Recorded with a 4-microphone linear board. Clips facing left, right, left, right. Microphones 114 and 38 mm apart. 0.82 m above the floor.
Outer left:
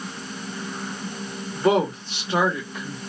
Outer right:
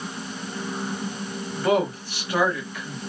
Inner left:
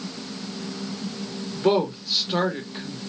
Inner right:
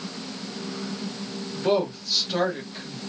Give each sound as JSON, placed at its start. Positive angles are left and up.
{"t": 1.6, "sound": "a woman speaking", "side_deg": 25, "distance_m": 1.0}